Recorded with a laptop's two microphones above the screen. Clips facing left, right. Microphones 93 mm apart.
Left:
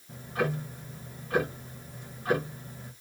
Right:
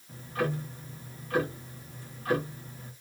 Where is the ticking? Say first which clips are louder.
Left 1 dB; 20° left (ahead or behind), 1.2 m.